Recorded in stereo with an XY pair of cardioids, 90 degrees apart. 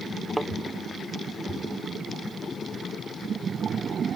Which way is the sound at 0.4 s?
5° right.